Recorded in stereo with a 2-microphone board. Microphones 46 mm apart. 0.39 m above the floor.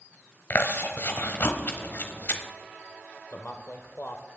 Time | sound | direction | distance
0.5 | chewing | 45° left (ahead or behind) | 1.0 m
3.3 | a man speaking | 45° left (ahead or behind) | 1.0 m